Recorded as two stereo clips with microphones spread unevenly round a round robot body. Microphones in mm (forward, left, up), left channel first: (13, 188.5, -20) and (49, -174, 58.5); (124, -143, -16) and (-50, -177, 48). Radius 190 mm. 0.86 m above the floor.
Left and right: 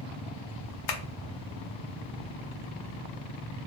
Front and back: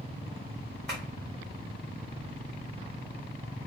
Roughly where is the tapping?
Behind left.